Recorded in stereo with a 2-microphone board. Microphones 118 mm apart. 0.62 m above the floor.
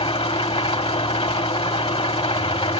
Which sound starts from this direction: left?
An engine running, at 0.0 s.